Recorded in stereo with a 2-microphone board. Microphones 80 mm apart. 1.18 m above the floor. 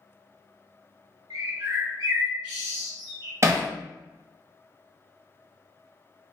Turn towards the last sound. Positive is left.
turn(degrees=-35)  # may be behind; listen again after turning